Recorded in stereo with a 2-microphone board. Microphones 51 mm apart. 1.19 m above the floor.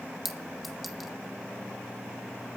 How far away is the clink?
About 1.7 m.